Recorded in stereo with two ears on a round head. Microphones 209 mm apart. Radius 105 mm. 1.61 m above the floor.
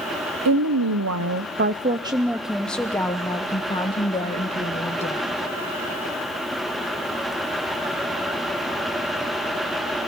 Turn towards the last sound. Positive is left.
turn(degrees=30)  # may be behind; listen again after turning